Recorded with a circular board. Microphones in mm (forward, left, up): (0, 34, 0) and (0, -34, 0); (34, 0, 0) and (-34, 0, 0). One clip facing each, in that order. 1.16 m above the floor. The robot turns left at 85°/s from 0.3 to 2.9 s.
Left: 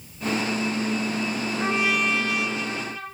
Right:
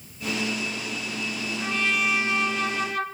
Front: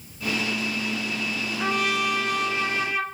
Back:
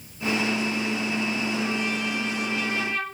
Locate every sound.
1.6 s a trumpet: 35° left, 1.1 m; by 3.0 s 80° right, 1.1 m